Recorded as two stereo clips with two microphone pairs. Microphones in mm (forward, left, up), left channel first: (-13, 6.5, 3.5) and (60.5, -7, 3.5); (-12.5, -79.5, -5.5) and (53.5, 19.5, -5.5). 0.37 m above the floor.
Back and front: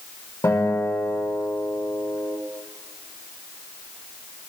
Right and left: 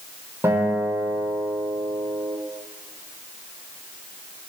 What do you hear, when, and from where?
0.4 s a guitar: 125° left, 7.5 m